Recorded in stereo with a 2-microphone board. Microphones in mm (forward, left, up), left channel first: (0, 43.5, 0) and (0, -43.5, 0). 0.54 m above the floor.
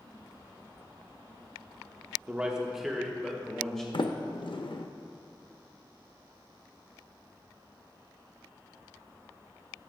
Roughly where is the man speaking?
Centre.